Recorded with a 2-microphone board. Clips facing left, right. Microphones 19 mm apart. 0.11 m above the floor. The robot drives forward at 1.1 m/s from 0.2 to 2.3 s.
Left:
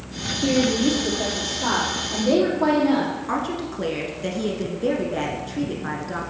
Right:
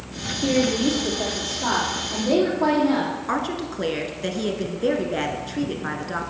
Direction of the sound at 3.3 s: 20° right (ahead or behind).